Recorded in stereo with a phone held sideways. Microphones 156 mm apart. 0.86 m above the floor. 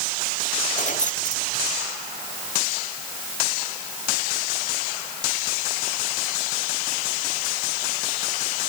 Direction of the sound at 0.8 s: 55° left (ahead or behind).